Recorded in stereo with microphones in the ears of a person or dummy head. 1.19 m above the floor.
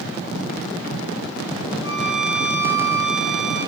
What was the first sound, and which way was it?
A violin, 45° left (ahead or behind).